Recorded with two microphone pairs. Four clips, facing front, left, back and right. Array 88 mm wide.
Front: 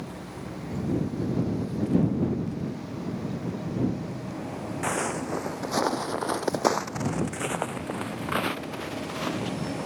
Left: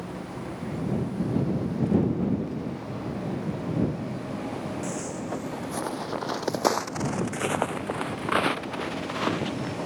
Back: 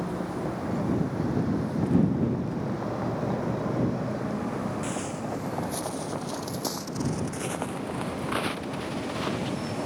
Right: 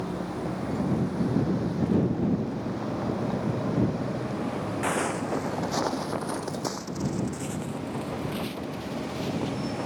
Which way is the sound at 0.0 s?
145° right.